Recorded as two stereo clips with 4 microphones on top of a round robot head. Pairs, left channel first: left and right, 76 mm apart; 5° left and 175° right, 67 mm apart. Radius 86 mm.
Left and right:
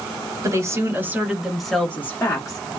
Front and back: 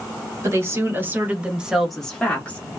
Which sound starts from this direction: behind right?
A woman speaking, at 0.4 s.